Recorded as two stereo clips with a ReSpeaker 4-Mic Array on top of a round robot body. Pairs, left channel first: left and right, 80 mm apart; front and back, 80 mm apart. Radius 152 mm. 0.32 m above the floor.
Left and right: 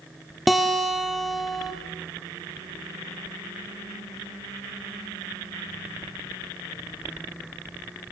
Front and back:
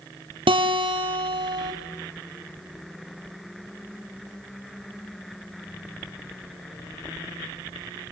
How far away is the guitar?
About 3 m.